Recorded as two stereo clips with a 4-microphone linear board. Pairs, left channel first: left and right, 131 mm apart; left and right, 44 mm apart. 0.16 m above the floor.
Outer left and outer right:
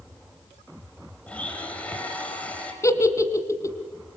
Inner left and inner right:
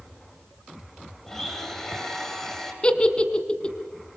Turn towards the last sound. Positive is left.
turn(degrees=25)  # may be behind; listen again after turning